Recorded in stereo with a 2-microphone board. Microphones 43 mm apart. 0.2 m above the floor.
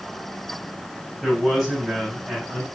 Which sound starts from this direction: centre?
A man speaking, at 1.2 s.